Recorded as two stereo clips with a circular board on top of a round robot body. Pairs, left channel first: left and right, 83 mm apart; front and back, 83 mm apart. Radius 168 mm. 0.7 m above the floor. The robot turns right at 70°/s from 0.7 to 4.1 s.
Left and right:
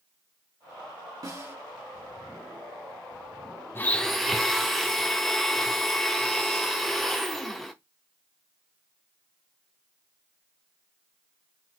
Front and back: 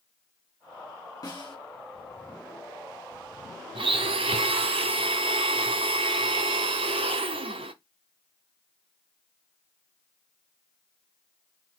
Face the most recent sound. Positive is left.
turn(degrees=180)